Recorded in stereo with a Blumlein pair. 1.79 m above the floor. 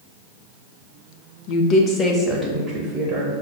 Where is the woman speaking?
45° left, 0.5 m; by 3.3 s 25° right, 1.0 m.